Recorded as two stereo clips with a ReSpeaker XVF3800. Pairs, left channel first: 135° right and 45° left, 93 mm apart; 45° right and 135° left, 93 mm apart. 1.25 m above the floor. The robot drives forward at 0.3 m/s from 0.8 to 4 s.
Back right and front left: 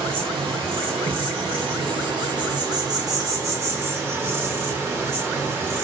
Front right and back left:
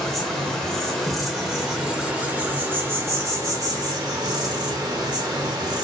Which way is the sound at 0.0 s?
40° left.